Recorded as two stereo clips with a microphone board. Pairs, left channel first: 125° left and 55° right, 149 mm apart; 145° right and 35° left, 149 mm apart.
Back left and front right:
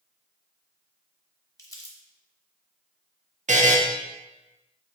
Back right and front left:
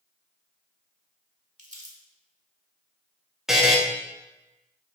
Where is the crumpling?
60° left, 0.8 m.